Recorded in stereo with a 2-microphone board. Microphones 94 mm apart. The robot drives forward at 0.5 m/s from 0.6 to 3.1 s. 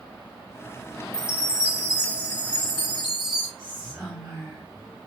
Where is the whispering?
5° left (ahead or behind), 2.5 m.